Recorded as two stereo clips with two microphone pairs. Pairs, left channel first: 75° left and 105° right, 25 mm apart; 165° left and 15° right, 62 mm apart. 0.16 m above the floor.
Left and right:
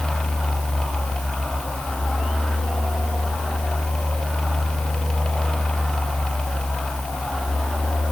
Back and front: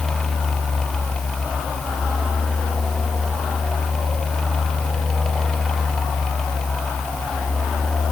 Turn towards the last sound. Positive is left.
No sound to turn to.